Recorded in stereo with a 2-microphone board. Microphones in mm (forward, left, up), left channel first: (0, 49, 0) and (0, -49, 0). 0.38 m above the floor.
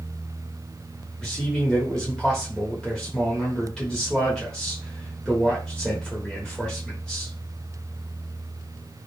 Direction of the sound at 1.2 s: 5° left (ahead or behind).